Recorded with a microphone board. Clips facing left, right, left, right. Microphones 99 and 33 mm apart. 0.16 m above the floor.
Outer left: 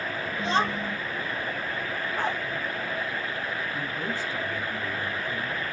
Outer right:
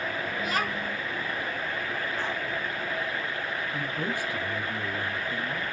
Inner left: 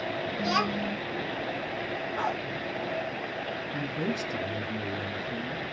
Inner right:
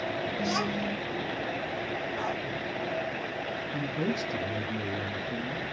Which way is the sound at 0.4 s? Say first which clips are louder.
Outer left 6 dB, inner left 4 dB; 25° left (ahead or behind).